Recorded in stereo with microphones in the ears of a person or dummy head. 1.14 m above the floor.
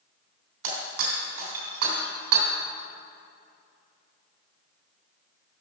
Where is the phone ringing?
No phone ringing in this recording.